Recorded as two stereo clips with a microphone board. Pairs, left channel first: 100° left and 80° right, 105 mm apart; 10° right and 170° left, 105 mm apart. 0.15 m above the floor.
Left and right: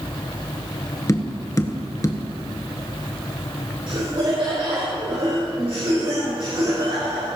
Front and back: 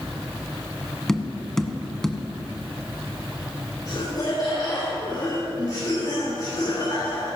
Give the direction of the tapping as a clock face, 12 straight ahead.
10 o'clock.